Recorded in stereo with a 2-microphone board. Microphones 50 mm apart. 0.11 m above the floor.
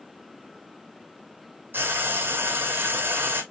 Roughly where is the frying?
Right.